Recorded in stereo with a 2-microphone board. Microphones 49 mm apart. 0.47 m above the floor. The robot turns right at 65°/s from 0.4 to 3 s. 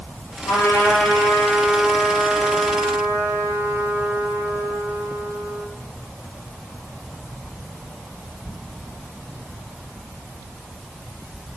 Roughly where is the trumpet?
Left.